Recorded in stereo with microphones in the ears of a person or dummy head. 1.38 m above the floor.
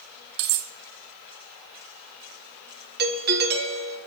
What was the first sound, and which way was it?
Cutlery clinking, 65° right (ahead or behind).